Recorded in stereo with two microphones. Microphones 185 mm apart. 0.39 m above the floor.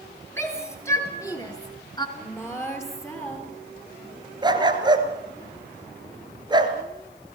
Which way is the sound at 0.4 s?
10° left (ahead or behind).